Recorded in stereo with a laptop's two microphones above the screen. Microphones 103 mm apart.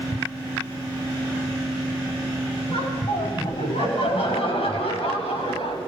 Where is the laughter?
80° left, 8.5 m; by 5.8 s 75° left (ahead or behind), 7 m.